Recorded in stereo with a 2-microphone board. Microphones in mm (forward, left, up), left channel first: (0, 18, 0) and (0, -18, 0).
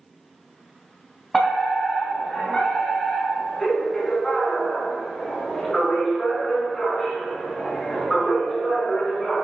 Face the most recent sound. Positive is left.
turn(degrees=5)  # may be behind; listen again after turning